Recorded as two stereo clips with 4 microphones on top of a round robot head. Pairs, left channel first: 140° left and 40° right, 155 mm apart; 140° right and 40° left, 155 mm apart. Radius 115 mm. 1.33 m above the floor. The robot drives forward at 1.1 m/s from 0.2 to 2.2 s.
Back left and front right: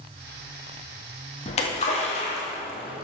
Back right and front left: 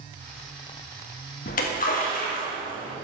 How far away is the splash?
About 1.6 m.